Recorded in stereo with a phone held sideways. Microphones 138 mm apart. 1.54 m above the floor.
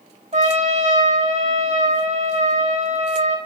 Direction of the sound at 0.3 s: 55° right (ahead or behind).